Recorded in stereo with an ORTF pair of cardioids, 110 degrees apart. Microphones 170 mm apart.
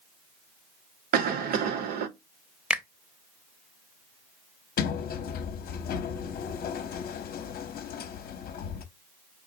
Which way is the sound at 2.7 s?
5° right.